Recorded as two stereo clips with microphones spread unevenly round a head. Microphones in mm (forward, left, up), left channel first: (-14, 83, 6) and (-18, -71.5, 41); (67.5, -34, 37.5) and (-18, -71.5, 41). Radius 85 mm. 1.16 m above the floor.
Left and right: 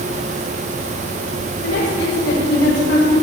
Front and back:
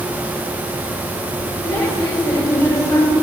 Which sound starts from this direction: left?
A woman speaking, at 1.6 s.